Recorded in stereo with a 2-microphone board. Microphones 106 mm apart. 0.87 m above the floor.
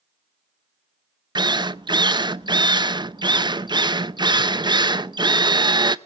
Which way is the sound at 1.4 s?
40° right (ahead or behind).